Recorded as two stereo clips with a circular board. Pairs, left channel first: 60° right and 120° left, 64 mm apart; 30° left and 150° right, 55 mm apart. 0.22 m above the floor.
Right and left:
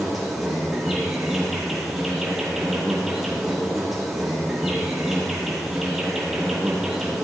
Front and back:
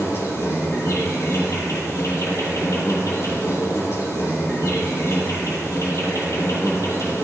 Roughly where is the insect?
Ahead left.